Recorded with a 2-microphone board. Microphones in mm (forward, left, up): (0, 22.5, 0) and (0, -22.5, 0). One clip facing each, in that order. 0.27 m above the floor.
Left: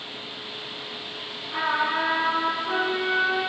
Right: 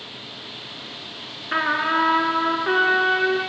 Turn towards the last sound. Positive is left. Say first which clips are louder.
# right 4 dB
turn(degrees=-75)  # may be behind; listen again after turning